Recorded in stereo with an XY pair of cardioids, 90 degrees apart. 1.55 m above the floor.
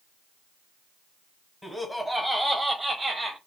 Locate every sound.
1.6 s laughter: 15° left, 1.1 m; by 3.4 s 40° right, 1.1 m